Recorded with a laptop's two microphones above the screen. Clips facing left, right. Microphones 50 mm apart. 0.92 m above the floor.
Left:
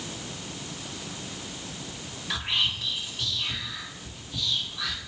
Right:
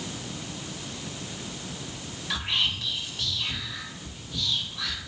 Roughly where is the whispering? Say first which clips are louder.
Even; centre.